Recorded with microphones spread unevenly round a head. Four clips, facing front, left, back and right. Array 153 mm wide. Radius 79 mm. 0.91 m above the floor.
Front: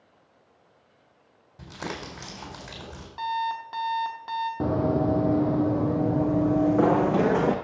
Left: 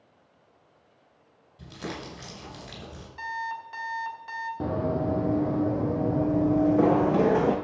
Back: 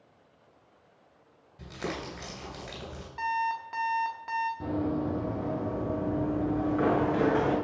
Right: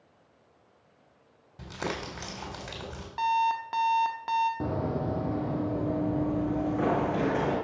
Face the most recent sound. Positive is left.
turn(degrees=35)